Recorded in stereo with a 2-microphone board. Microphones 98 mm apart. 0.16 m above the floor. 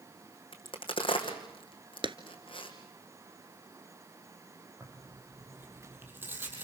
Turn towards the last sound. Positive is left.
turn(degrees=-20)  # may be behind; listen again after turning